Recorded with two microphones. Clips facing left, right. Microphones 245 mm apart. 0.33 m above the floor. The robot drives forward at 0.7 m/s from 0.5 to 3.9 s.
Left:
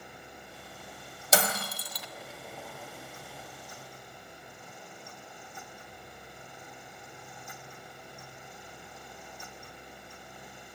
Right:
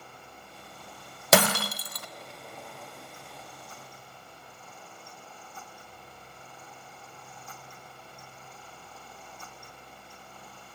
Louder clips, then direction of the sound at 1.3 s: Right 7 dB; 65° right (ahead or behind).